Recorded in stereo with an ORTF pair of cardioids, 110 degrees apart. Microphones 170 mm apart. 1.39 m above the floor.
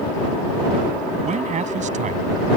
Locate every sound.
1.2 s a man speaking: 45° right